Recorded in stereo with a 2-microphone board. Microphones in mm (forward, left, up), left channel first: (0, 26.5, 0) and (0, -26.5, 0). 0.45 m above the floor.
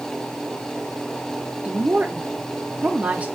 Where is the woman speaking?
25° right (ahead or behind), 0.8 m.